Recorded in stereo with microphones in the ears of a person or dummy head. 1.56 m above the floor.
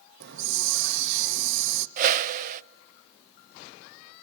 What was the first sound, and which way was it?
A hiss, 60° right (ahead or behind).